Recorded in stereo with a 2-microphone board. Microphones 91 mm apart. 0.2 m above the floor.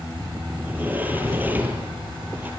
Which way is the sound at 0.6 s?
20° right (ahead or behind).